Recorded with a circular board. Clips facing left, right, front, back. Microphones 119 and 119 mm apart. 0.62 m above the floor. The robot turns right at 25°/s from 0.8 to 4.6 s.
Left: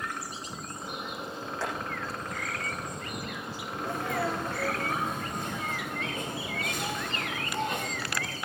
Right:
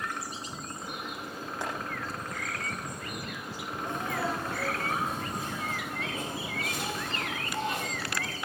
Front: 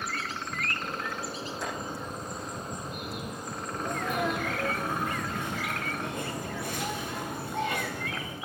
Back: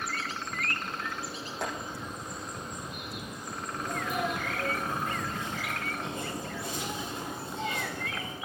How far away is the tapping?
About 9 m.